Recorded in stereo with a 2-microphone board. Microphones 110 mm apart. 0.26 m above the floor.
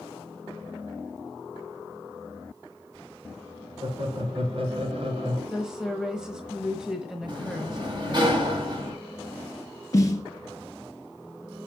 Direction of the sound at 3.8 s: 55° right (ahead or behind).